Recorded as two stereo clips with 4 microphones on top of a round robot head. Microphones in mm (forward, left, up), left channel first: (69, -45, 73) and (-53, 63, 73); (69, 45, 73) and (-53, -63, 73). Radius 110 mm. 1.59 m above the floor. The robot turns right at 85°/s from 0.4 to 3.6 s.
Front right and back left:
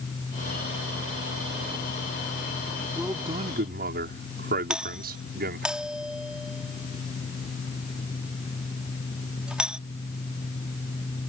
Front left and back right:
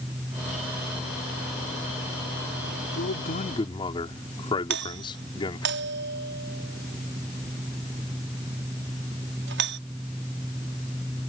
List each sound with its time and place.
3.0 s a man speaking: 50° left; by 5.7 s 105° left
4.7 s a doorbell: 135° right